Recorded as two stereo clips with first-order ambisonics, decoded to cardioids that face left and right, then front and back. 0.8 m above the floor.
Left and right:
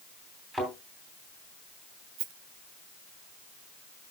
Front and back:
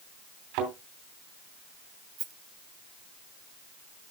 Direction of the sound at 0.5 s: 175° right.